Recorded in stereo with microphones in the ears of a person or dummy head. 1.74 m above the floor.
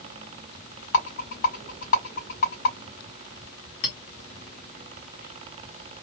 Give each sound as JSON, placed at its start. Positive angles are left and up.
{"t": 0.9, "sound": "a rattle", "side_deg": 45, "distance_m": 2.0}
{"t": 3.8, "sound": "a clink", "side_deg": 40, "distance_m": 0.9}